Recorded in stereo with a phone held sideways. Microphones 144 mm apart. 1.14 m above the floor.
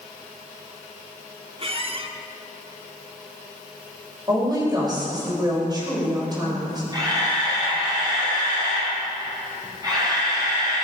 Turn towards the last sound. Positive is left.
turn(degrees=-25)  # may be behind; listen again after turning